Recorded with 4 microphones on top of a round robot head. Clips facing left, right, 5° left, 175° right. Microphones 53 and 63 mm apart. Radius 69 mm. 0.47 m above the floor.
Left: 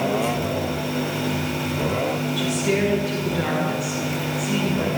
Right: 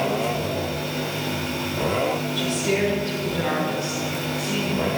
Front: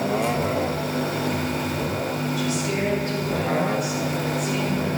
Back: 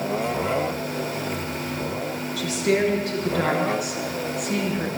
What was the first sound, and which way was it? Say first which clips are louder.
A woman speaking: left 2 dB, back 3 dB; 175° left.